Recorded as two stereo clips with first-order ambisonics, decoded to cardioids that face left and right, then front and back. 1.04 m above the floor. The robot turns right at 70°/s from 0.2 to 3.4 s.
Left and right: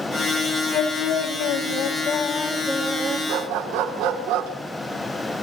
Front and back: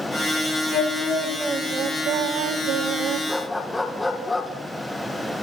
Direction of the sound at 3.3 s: 90° right.